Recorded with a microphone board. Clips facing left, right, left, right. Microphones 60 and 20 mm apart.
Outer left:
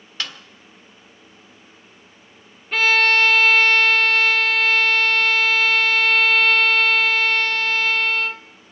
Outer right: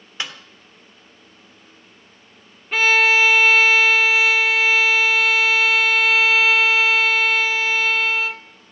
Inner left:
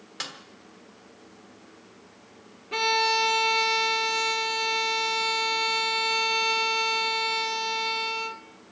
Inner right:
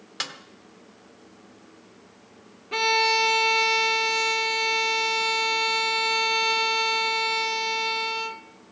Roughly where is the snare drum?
Centre.